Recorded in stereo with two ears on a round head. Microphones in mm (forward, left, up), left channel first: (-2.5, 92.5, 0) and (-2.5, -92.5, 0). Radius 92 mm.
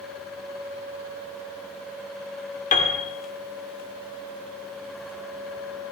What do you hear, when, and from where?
2.7 s a piano: 40° left (ahead or behind), 2.5 m